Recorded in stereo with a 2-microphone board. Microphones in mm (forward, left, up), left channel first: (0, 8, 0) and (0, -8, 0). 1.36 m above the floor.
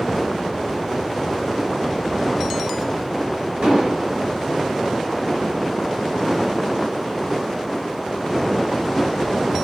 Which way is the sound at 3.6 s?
75° right (ahead or behind).